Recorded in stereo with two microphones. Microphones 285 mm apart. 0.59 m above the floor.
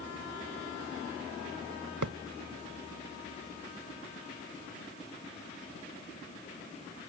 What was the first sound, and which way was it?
A thud, 90° right.